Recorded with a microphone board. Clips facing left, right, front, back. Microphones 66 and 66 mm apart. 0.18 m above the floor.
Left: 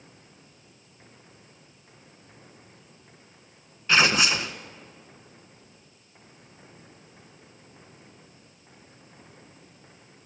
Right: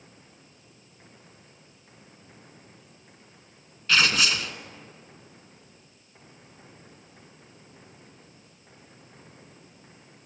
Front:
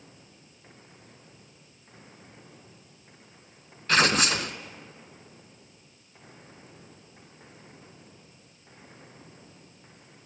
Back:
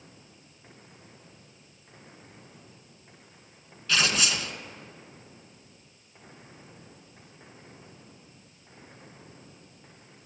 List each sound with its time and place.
3.9 s tearing paper: 30° left, 0.6 m